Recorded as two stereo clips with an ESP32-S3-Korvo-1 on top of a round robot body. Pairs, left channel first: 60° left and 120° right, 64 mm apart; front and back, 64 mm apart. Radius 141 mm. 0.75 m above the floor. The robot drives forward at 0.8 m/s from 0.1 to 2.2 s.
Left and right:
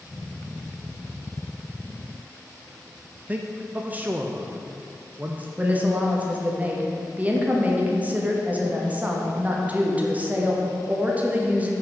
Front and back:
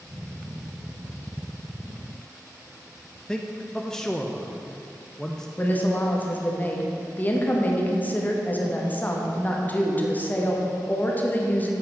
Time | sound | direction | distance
3.3 | a man speaking | 75° right | 0.7 m
5.6 | a woman speaking | 60° right | 1.4 m